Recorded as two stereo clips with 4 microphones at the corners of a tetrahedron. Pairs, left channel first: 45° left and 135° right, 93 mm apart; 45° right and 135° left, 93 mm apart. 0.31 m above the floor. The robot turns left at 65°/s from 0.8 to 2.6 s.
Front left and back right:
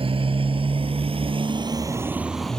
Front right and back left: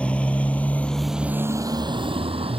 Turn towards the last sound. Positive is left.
turn(degrees=125)